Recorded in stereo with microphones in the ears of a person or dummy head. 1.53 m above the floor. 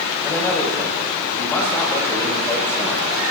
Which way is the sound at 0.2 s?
15° left (ahead or behind).